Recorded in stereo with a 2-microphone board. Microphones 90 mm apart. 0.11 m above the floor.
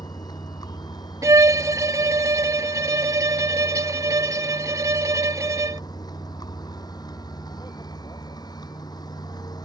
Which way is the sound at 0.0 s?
50° left (ahead or behind).